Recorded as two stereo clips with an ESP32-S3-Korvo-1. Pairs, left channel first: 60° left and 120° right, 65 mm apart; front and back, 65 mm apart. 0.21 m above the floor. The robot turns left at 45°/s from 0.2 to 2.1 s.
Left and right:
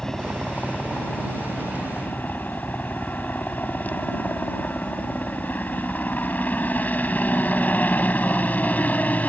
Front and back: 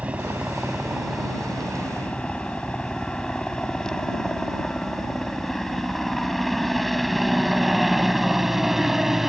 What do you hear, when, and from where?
0.0 s a helicopter: 130° left; by 9.3 s 100° left